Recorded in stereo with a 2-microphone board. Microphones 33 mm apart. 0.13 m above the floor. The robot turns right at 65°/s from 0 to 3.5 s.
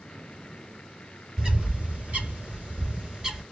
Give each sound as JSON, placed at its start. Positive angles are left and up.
{"t": 1.4, "sound": "a bird", "side_deg": -20, "distance_m": 1.7}